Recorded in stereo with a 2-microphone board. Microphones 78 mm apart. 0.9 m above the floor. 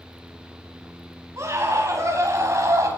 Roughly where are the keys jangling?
No keys jangling in this recording.